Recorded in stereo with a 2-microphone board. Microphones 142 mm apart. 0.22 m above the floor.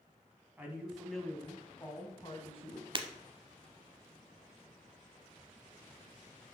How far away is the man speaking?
About 1.8 m.